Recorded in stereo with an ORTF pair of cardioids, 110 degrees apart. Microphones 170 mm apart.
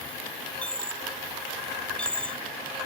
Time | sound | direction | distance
0.6 | a dropped coin | 5° left | ?